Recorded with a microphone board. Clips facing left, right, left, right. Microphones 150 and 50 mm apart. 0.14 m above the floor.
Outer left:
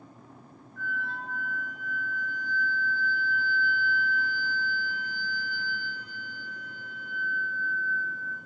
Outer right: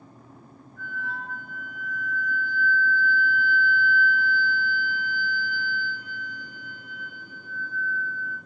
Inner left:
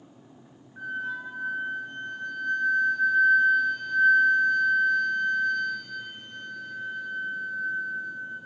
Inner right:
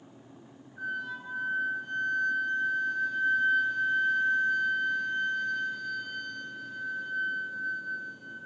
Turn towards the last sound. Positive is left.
turn(degrees=60)  # may be behind; listen again after turning